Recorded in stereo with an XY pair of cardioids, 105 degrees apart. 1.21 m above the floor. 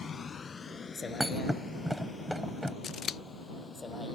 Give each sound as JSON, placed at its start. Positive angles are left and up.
{"t": 0.0, "sound": "a vehicle", "azimuth_deg": 40}
{"t": 1.2, "sound": "a thud", "azimuth_deg": 0}
{"t": 2.8, "sound": "scissors", "azimuth_deg": 55}